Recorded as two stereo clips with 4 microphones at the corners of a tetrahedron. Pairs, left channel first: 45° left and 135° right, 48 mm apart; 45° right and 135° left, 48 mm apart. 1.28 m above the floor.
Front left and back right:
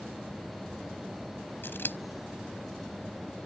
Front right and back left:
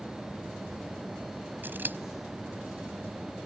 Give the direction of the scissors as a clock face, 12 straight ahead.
9 o'clock.